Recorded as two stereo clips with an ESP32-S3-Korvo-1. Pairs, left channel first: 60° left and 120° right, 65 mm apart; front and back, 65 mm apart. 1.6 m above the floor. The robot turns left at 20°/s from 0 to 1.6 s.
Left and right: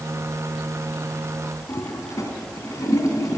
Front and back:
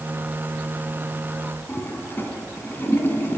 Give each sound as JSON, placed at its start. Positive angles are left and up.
{"t": 1.7, "sound": "a toilet flushing", "azimuth_deg": 50, "distance_m": 3.0}